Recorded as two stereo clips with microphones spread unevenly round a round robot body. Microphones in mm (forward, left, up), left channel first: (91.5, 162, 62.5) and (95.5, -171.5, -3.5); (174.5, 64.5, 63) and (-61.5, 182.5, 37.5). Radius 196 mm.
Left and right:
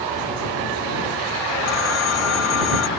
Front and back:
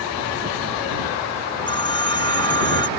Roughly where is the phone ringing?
Ahead left.